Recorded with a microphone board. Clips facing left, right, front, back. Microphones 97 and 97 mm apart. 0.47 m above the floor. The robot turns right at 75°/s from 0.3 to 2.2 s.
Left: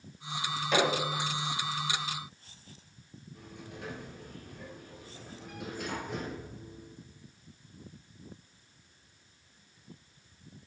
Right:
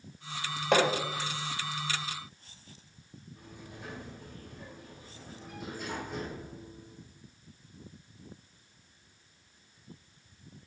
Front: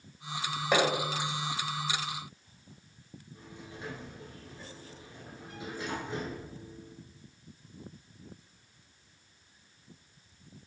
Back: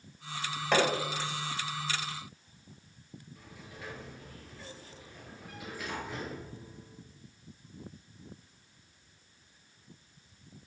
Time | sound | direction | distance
0.7 | hammering | 80° right | 2 m
3.4 | a sliding door | 65° left | 1.9 m